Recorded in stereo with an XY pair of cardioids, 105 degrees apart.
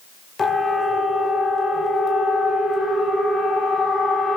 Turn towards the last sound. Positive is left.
turn(degrees=35)